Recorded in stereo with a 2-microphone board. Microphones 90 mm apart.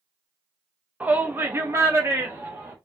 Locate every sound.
1.0 s a shout: 15° right (ahead or behind), 1.1 m; by 2.8 s 30° right (ahead or behind), 1.6 m